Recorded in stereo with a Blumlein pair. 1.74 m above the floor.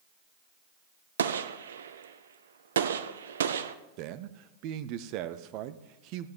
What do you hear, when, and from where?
1.2 s a gunshot: 65° right, 0.7 m
4.0 s a man speaking: 40° right, 0.8 m